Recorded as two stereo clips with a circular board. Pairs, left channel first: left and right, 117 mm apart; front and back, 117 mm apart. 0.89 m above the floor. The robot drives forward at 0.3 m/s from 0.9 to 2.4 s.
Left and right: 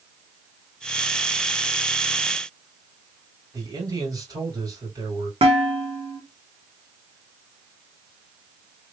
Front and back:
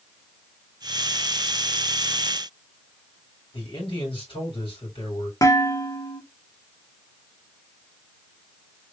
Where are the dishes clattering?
60° right, 1.3 m.